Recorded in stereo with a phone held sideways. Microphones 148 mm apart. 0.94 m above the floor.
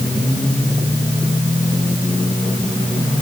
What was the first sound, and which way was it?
Only background noise.